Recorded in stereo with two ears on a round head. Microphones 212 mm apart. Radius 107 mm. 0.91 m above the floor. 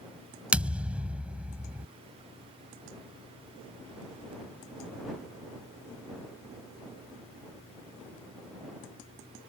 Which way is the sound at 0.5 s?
5° right (ahead or behind).